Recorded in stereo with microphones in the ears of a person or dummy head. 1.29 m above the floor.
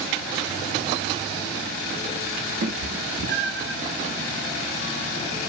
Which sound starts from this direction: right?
A cat meowing, at 2.6 s.